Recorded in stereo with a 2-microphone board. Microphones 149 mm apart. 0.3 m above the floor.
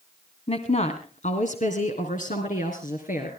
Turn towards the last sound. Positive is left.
turn(degrees=65)  # may be behind; listen again after turning